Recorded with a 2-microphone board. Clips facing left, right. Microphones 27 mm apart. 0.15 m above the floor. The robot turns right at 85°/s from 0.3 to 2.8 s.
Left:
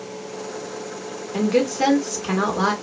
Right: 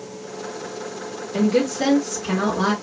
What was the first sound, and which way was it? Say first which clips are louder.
A woman speaking: even; 20° left (ahead or behind).